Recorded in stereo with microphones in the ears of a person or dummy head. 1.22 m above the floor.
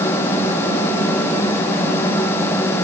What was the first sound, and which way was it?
Only background noise.